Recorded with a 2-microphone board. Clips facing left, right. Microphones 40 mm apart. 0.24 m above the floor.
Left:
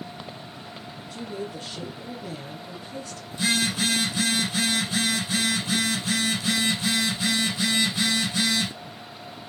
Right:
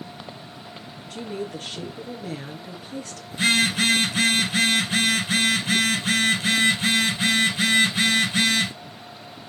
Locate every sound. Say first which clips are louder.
1.1 s a woman speaking: right 3 dB; 70° right (ahead or behind), 3.5 m
3.3 s a phone buzzing: right 4 dB; 55° right (ahead or behind), 2.5 m